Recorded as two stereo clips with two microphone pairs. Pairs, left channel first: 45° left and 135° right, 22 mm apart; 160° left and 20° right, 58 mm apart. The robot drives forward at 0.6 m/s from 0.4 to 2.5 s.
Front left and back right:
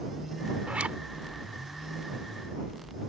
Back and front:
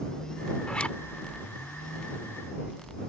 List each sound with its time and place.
0.7 s a zipper: 125° right; by 1.0 s 130° right